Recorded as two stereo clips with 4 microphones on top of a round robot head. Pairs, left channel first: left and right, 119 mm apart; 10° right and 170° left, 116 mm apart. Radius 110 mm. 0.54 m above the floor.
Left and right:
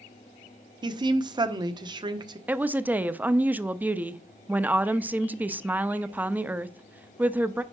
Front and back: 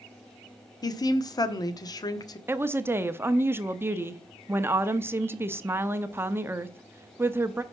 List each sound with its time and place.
0.8 s a woman speaking: 55° right, 1.1 m
2.5 s a woman speaking: 145° right, 0.8 m